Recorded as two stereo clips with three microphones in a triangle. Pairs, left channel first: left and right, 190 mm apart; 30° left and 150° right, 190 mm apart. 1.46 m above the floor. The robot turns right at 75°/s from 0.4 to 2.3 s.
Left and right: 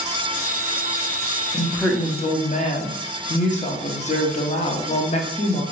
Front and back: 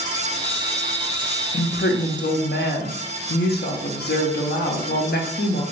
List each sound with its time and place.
1.5 s a woman speaking: 15° right, 0.6 m; by 5.6 s 45° left, 0.6 m